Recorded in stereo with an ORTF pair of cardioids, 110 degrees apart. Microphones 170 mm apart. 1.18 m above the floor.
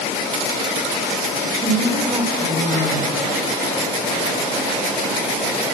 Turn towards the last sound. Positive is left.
turn(degrees=-35)